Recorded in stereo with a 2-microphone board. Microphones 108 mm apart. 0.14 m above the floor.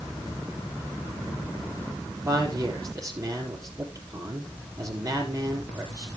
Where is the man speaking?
30° right (ahead or behind), 3.5 m.